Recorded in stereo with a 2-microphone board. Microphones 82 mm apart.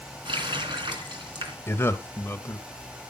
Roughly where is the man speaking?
Left.